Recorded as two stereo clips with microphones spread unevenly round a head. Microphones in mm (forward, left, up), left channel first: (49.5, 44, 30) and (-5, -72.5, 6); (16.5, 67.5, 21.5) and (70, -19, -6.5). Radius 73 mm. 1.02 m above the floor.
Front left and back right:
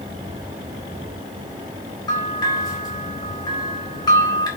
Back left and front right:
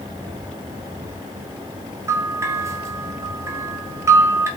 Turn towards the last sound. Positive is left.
turn(degrees=5)